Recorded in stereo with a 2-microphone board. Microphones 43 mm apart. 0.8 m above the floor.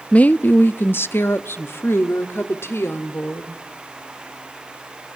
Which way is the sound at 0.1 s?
30° left (ahead or behind).